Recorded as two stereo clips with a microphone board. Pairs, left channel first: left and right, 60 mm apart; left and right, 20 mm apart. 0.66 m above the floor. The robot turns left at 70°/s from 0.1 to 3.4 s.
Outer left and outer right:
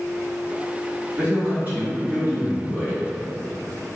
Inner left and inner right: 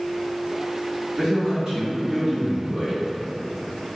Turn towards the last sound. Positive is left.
turn(degrees=180)